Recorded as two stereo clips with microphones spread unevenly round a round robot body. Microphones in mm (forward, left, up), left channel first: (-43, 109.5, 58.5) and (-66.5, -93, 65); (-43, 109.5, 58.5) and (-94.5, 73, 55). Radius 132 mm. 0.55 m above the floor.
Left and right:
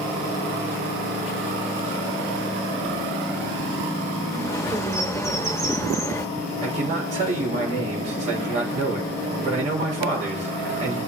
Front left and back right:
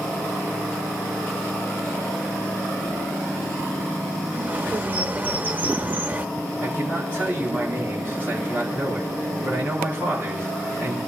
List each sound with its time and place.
4.3 s a bird: 160° left, 1.5 m
6.6 s a man speaking: 35° right, 3.5 m